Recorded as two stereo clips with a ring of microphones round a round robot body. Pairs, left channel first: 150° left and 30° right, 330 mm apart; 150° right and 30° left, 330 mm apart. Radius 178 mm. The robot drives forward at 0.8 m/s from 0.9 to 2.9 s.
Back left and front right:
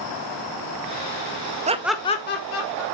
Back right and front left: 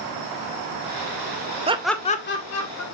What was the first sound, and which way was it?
Laughter, 5° right.